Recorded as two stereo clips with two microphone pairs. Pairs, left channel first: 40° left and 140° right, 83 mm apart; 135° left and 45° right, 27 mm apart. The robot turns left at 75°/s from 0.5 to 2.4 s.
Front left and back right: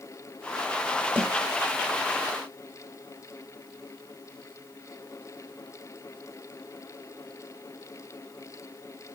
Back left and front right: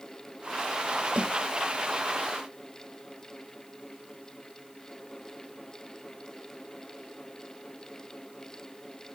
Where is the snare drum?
80° right, 5.5 m; by 1.3 s 90° right, 5.5 m.